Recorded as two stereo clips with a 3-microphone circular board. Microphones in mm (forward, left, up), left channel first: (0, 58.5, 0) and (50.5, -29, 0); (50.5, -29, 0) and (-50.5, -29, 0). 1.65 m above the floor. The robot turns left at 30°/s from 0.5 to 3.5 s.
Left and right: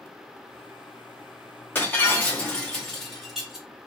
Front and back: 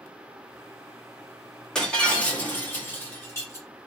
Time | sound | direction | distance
1.8 | breaking glass | 75° left | 1.2 m